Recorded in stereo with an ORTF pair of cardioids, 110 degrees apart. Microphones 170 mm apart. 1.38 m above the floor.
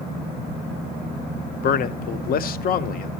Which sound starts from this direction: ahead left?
A man speaking, at 1.6 s.